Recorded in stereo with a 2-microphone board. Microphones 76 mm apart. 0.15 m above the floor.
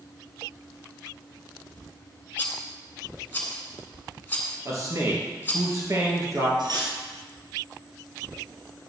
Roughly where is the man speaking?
Right.